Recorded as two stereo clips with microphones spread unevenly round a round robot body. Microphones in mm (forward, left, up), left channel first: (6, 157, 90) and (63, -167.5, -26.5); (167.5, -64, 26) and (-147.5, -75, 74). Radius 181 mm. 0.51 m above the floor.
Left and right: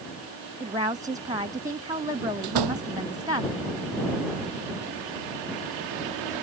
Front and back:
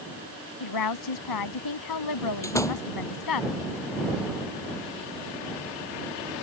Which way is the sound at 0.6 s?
5° right.